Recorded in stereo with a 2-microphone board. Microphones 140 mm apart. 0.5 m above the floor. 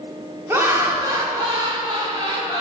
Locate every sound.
0.5 s laughter: 15° right (ahead or behind), 1.3 m; by 2.6 s 40° right (ahead or behind), 2 m